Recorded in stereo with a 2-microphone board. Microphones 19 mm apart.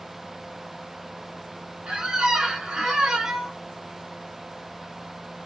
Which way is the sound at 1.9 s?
60° right (ahead or behind).